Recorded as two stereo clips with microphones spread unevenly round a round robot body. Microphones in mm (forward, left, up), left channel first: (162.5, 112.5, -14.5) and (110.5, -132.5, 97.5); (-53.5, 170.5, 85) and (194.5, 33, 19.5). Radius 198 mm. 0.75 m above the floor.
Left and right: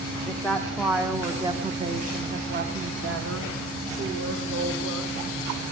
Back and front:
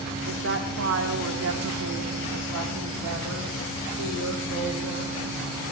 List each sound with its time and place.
0.3 s a woman speaking: 5° left, 1.7 m; by 5.1 s 85° right, 2.5 m